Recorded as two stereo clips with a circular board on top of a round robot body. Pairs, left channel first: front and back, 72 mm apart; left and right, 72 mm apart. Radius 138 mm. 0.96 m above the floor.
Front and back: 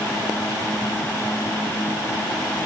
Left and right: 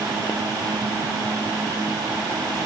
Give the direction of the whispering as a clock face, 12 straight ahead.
I don't hear whispering.